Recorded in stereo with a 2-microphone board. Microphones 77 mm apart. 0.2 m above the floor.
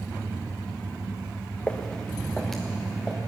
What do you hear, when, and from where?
1.7 s footsteps: 15° left (ahead or behind), 1.2 m; by 3.2 s centre (ahead or behind), 2 m